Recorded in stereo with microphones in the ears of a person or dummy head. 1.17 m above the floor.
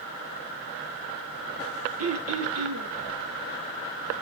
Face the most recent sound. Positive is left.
turn(degrees=-70)  # may be behind; listen again after turning